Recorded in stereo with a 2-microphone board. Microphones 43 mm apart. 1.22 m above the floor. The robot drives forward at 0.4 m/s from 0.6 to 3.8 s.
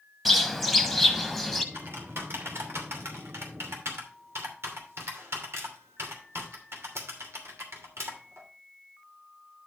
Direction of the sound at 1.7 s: 65° right (ahead or behind).